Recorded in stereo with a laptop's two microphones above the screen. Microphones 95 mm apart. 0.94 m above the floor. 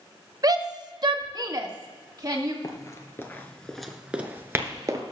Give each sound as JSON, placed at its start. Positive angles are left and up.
{"t": 0.4, "sound": "a shout", "side_deg": -40, "distance_m": 0.7}
{"t": 2.6, "sound": "running footsteps", "side_deg": 35, "distance_m": 1.2}